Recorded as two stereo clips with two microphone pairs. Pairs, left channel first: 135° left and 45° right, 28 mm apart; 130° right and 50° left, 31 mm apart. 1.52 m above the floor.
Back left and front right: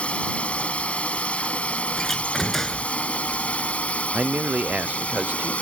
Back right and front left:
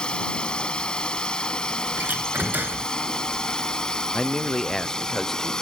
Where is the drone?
175° left; by 5.6 s 170° left.